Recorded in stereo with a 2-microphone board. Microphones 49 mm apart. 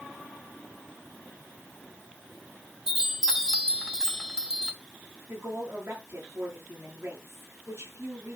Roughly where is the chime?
Centre.